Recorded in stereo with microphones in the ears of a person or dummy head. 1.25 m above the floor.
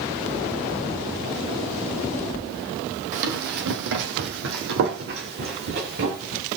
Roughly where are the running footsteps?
Right.